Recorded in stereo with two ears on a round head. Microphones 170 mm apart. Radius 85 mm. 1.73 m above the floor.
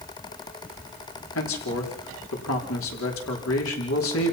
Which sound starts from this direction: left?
A man speaking, at 1.4 s.